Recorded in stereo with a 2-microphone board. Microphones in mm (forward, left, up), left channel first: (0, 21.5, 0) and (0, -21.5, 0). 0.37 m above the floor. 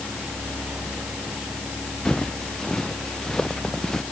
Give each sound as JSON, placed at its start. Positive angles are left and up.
{"t": 2.0, "sound": "footsteps", "side_deg": 15}